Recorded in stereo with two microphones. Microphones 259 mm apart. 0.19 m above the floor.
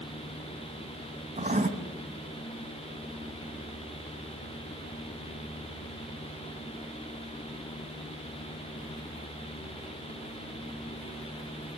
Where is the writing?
30° right (ahead or behind), 1.4 m.